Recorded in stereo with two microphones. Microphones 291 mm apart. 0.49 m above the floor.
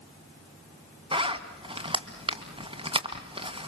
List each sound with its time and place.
1.1 s a zipper: 20° right (ahead or behind), 2 m